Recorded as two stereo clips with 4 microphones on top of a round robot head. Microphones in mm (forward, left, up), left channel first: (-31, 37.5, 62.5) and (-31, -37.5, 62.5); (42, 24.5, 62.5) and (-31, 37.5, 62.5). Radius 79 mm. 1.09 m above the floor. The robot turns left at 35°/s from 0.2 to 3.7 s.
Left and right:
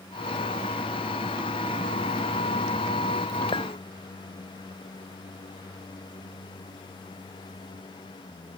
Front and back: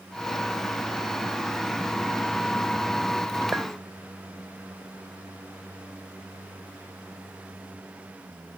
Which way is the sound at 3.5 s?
105° left.